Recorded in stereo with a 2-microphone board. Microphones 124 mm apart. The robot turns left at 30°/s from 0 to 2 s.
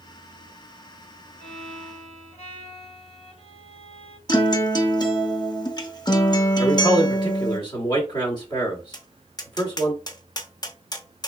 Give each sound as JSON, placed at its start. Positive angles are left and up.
{"t": 1.4, "sound": "a violin", "side_deg": 60, "distance_m": 2.5}
{"t": 4.3, "sound": "a guitar", "side_deg": 30, "distance_m": 0.7}
{"t": 6.6, "sound": "a man speaking", "side_deg": 35, "distance_m": 1.4}
{"t": 8.9, "sound": "tapping", "side_deg": 30, "distance_m": 0.6}